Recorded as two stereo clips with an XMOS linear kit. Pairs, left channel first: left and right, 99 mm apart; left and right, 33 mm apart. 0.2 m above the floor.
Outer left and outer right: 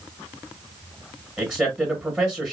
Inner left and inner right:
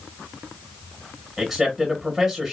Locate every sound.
1.4 s a man speaking: 15° right (ahead or behind), 1.8 m